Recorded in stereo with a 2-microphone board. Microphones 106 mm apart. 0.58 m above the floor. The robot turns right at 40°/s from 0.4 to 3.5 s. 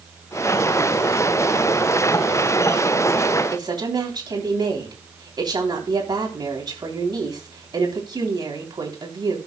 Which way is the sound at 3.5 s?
45° right (ahead or behind).